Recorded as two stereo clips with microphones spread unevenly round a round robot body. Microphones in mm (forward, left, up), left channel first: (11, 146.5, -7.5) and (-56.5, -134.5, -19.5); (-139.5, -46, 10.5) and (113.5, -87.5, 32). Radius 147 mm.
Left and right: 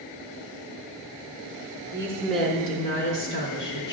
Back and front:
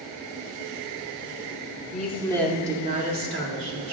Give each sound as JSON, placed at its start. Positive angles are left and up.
{"t": 1.9, "sound": "a woman speaking", "azimuth_deg": -170, "distance_m": 0.9}